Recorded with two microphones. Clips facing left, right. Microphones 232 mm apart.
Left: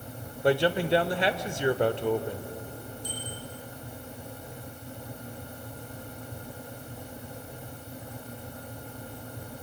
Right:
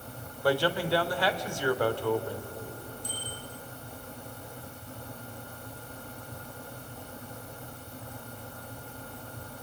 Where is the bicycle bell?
85° left, 8 m.